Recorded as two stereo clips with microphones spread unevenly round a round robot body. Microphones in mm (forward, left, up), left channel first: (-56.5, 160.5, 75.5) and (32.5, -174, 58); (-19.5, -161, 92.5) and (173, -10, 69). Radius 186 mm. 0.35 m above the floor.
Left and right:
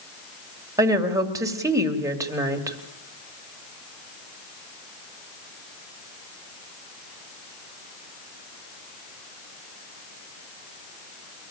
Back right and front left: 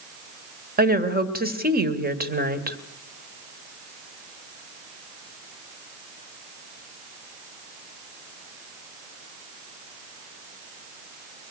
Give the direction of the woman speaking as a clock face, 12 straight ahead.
12 o'clock.